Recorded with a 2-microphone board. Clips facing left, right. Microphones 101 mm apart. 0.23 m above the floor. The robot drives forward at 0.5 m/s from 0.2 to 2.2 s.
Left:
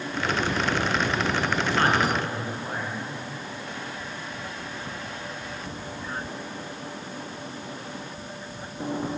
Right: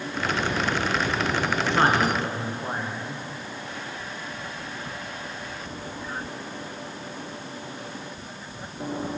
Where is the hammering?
I don't hear hammering.